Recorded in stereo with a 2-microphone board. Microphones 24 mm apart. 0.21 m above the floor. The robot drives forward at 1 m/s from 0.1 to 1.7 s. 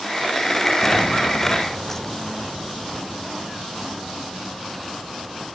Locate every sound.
0.8 s footsteps: 30° left (ahead or behind); by 5.6 s 5° left (ahead or behind)